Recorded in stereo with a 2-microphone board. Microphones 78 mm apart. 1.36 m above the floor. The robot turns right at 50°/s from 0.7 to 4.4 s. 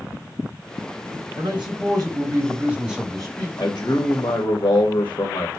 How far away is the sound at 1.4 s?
About 4 m.